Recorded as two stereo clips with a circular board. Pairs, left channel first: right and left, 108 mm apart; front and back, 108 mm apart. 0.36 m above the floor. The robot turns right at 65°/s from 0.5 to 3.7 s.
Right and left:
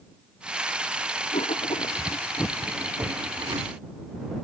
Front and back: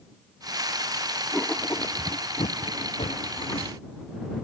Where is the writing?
90° right; by 3.7 s 65° left.